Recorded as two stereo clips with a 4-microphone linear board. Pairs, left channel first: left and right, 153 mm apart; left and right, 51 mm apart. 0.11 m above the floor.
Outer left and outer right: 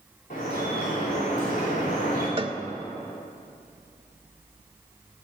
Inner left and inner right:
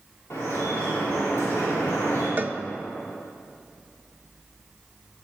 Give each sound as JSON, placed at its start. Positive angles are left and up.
{"t": 0.3, "sound": "dripping", "side_deg": 60, "distance_m": 6.0}
{"t": 2.4, "sound": "a cowbell", "side_deg": -35, "distance_m": 0.5}